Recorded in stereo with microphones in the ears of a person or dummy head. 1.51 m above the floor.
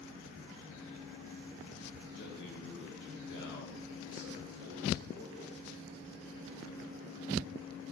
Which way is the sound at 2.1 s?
65° left (ahead or behind).